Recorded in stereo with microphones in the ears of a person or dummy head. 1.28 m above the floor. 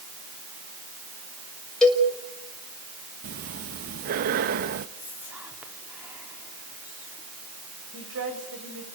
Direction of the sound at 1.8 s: Centre (ahead or behind).